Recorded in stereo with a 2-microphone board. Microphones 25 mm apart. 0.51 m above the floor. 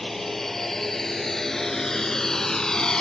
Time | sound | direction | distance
0.0 | a drone | 15° left (ahead or behind) | ?